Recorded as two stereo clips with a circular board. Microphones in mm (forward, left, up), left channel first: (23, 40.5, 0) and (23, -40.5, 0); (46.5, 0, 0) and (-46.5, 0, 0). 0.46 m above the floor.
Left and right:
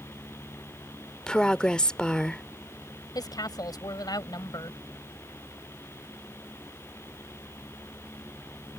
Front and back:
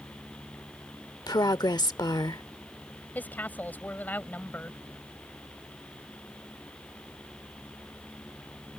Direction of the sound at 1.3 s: 15° left.